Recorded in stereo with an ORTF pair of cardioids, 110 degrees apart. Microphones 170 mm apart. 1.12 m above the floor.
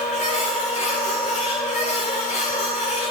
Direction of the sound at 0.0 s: 45° left.